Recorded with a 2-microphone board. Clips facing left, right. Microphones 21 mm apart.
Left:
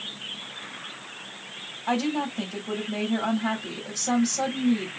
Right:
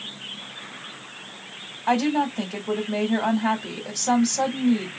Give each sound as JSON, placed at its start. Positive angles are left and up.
{"t": 1.9, "sound": "a woman speaking", "side_deg": -25, "distance_m": 1.5}